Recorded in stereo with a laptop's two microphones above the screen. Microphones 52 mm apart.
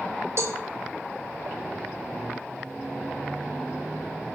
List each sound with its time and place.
0.4 s a cowbell: 60° right (ahead or behind), 2 m